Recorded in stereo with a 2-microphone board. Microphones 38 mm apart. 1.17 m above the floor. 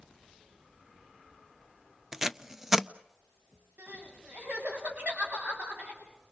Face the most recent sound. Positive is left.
turn(degrees=-55)  # may be behind; listen again after turning